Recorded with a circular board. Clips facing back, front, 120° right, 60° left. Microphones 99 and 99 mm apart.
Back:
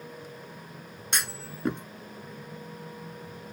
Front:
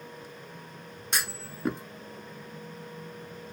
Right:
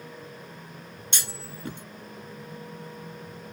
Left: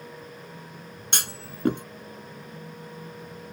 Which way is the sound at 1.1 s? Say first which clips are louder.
Even, left 4 dB; 90° left.